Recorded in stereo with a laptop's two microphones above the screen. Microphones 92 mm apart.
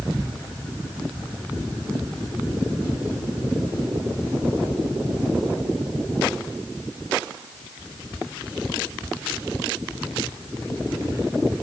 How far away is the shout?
I don't hear a shout.